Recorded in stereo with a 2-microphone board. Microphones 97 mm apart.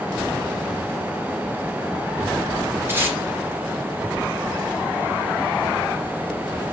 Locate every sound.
2.9 s tape being pulled: 20° right (ahead or behind), 1.8 m